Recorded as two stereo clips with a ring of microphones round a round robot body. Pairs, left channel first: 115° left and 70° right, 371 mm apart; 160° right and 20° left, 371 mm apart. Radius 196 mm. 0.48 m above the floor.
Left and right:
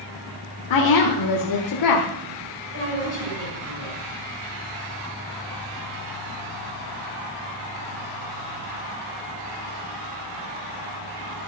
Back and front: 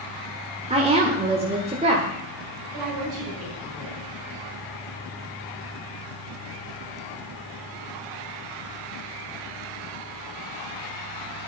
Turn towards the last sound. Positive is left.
turn(degrees=-10)